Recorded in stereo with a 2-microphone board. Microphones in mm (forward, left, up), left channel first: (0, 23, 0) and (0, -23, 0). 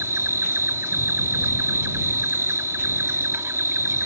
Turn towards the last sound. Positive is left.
turn(degrees=-65)  # may be behind; listen again after turning